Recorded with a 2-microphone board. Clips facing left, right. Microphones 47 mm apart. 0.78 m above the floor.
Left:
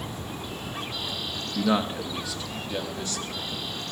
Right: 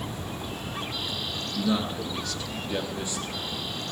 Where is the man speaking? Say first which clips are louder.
Left 3 dB; 45° left (ahead or behind), 1.2 m; by 3.6 s 25° right (ahead or behind), 2.5 m.